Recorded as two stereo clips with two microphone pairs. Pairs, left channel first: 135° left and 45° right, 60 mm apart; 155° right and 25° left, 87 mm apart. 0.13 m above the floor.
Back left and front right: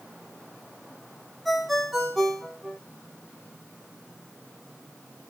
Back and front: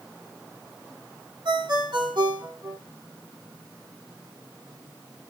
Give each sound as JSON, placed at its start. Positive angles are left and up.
{"t": 1.4, "sound": "a ringtone", "azimuth_deg": 40, "distance_m": 5.0}